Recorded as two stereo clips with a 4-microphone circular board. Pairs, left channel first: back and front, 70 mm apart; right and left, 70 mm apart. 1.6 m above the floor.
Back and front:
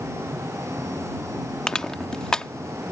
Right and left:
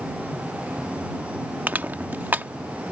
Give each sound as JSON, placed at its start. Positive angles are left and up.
{"t": 1.7, "sound": "crushing", "azimuth_deg": 110}